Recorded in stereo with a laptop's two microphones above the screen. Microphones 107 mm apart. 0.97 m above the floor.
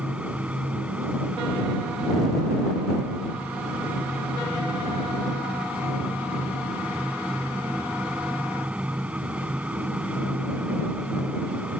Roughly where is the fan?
Centre.